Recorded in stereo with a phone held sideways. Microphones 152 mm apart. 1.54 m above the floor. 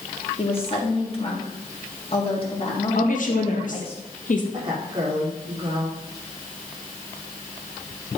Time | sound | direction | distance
0.4 | a woman speaking | 40° left (ahead or behind) | 3 m
3.0 | a woman speaking | 60° left (ahead or behind) | 1.8 m
4.5 | a woman speaking | 35° right (ahead or behind) | 4 m